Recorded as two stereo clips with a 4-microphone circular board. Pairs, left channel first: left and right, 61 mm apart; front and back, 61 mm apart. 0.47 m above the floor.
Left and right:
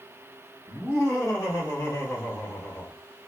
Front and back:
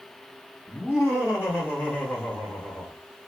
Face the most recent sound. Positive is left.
turn(degrees=50)